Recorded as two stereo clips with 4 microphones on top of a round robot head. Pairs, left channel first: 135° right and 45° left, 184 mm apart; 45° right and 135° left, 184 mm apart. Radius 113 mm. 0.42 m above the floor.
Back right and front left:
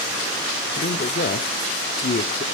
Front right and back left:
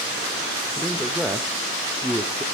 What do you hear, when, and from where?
0.8 s a man speaking: 135° right, 1.1 m